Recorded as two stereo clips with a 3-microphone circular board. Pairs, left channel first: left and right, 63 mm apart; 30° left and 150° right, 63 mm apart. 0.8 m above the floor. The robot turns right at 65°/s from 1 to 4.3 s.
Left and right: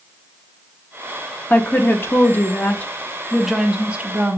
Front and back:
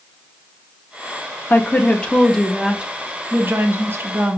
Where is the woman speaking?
55° left, 0.6 m; by 4.4 s 125° right, 0.6 m.